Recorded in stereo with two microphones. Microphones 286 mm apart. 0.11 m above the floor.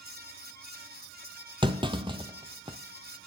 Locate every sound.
1.6 s a clunk: 15° right (ahead or behind), 0.8 m